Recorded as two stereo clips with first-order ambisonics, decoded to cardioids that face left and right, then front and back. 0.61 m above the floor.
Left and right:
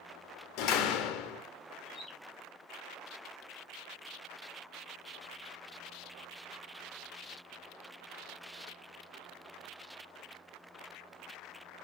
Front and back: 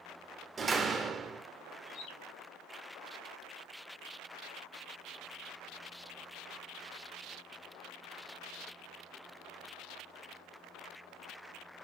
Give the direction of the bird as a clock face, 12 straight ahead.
11 o'clock.